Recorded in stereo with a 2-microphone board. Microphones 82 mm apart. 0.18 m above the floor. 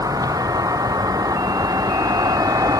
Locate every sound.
0.0 s a vehicle: 50° right (ahead or behind)